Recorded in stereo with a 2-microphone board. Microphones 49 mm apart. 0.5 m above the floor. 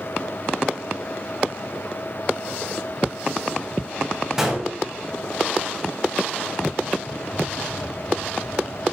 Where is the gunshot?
15° right (ahead or behind), 3 m.